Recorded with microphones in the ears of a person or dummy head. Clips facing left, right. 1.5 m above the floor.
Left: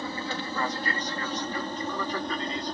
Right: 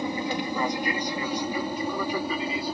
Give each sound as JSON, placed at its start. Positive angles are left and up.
{"t": 0.0, "sound": "an aircraft", "side_deg": -15}